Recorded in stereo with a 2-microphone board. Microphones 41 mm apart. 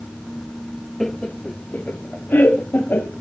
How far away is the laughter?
About 0.6 m.